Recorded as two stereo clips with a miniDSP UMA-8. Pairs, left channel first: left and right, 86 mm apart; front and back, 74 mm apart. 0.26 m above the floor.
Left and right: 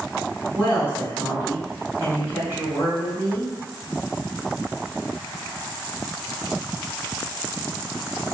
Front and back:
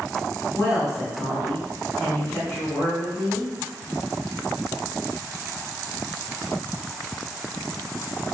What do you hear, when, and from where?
0.5 s a woman speaking: 45° right, 1.6 m